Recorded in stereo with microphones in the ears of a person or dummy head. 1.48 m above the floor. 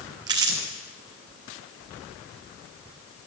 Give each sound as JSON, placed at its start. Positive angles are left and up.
{"t": 0.3, "sound": "crumpling", "side_deg": -20, "distance_m": 0.8}